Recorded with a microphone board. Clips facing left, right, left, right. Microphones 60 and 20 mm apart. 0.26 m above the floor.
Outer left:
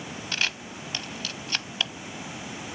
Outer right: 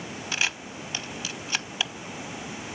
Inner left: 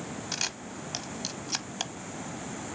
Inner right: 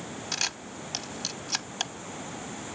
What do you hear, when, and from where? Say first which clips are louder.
0.3 s a camera shutter: outer right 1 dB, inner right 3 dB; 10° right (ahead or behind), 0.7 m